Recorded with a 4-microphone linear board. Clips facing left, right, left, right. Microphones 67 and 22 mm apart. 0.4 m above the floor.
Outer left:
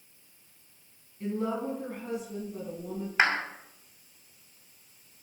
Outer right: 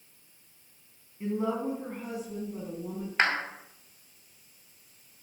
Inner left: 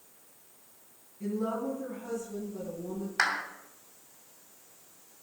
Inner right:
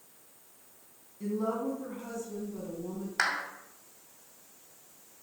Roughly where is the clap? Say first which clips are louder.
Outer left 1 dB, inner left 1 dB; centre.